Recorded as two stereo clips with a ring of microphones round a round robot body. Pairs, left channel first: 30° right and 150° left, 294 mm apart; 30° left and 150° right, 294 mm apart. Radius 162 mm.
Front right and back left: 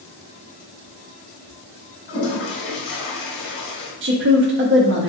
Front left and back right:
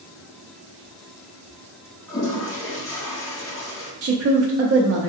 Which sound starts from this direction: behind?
A woman speaking, at 4.0 s.